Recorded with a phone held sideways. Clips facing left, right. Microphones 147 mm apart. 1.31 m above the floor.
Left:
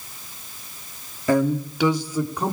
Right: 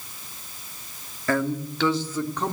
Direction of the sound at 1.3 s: 15° left (ahead or behind).